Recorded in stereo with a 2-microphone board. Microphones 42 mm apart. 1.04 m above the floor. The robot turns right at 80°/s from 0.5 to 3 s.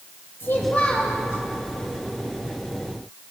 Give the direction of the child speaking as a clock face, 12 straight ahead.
8 o'clock.